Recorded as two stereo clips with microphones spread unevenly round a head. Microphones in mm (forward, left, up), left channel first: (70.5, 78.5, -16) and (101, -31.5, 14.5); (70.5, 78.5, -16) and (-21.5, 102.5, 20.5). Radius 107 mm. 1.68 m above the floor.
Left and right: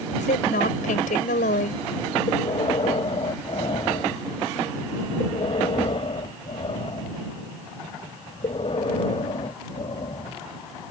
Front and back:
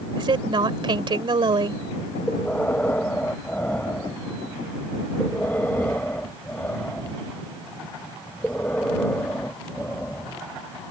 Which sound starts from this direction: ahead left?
Breathing, at 2.3 s.